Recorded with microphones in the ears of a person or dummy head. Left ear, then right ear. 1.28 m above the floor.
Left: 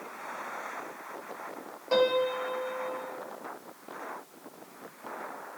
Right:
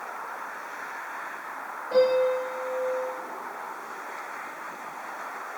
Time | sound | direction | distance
1.9 | a piano | 90° left | 3.5 m